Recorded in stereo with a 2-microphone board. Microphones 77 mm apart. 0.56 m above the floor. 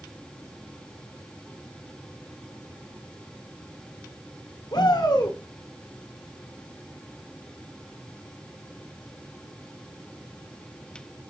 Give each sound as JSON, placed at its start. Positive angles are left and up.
{"t": 4.7, "sound": "a shout", "side_deg": 65, "distance_m": 2.0}